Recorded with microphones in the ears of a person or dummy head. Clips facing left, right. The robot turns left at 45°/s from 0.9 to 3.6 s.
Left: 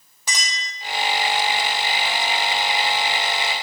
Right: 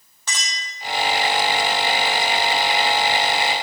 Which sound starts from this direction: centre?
A clink, at 0.3 s.